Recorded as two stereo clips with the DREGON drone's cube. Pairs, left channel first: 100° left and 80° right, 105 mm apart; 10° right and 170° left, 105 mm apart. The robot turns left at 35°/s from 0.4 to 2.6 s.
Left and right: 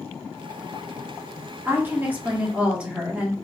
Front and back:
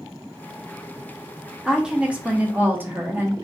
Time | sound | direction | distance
1.6 | a woman speaking | 110° right | 0.6 m